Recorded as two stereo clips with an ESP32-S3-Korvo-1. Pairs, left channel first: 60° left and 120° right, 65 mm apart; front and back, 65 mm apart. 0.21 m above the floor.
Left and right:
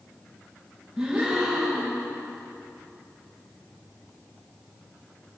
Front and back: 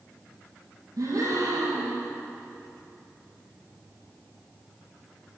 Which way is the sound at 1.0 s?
160° left.